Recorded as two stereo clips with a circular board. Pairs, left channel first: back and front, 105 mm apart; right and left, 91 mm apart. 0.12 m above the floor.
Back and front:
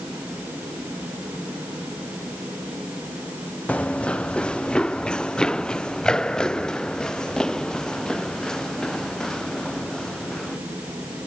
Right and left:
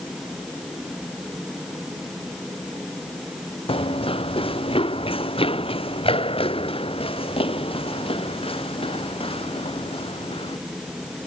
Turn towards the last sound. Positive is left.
turn(degrees=-95)